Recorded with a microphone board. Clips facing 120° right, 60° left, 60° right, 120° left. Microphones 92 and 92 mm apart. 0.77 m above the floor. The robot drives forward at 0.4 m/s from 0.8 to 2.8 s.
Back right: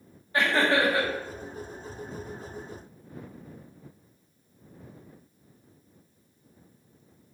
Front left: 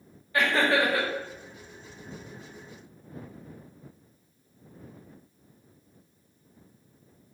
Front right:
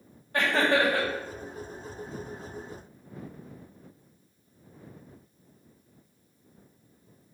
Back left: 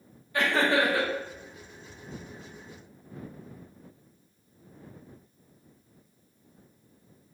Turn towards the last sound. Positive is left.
turn(degrees=-105)